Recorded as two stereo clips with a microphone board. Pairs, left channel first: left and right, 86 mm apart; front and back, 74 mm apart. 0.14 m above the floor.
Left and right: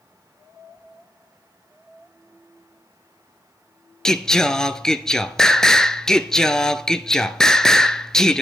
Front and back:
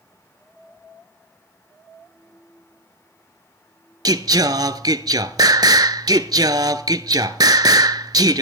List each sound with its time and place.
4.0 s singing: 175° left, 0.5 m